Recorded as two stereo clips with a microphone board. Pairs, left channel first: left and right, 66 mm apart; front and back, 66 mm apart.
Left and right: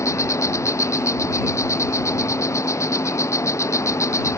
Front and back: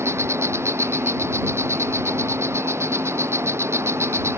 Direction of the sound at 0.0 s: 135° left.